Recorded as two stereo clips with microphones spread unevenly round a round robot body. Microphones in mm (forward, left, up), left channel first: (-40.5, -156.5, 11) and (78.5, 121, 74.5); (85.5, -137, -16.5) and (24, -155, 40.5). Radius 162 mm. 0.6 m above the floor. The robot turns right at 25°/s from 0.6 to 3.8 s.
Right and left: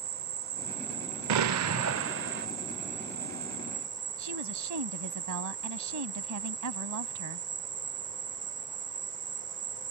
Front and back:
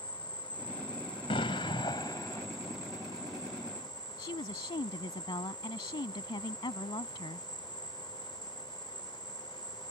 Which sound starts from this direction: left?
An explosion, at 1.3 s.